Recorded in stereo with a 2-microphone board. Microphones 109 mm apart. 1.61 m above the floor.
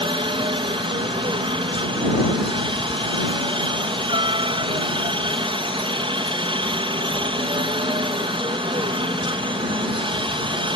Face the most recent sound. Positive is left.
turn(degrees=-50)  # may be behind; listen again after turning